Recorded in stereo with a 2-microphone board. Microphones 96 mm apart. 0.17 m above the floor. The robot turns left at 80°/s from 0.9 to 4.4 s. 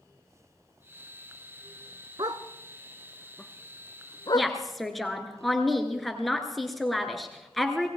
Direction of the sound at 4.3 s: 5° left (ahead or behind).